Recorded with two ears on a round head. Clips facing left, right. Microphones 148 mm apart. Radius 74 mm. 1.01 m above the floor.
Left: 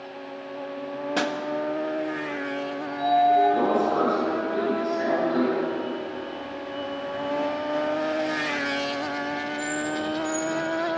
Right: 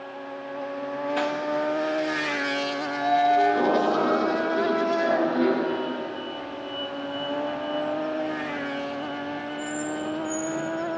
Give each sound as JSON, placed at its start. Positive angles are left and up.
{"t": 1.2, "sound": "a pop", "side_deg": 55, "distance_m": 1.8}
{"t": 2.8, "sound": "a sliding door", "side_deg": 15, "distance_m": 9.5}